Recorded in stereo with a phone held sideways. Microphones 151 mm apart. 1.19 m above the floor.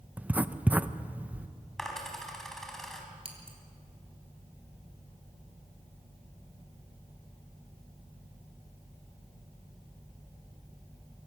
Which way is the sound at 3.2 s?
45° right (ahead or behind).